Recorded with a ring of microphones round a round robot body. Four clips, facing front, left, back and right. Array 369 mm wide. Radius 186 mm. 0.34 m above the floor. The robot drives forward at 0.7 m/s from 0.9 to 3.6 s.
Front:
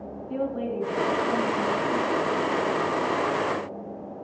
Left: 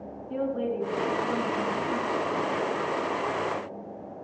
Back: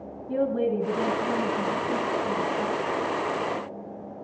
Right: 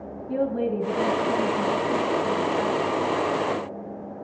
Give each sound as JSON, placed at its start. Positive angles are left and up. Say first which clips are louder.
{"t": 0.3, "sound": "a woman speaking", "louder": "right 4 dB, back 4 dB", "azimuth_deg": -130, "distance_m": 4.5}